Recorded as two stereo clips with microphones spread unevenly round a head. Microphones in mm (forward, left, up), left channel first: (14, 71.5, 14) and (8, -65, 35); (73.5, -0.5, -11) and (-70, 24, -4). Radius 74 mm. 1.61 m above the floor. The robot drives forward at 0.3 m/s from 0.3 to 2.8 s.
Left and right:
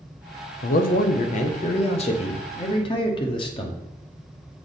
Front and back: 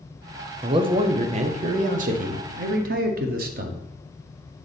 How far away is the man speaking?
About 0.7 m.